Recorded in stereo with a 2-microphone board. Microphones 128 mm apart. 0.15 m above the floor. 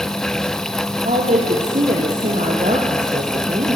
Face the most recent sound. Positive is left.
turn(degrees=-70)  # may be behind; listen again after turning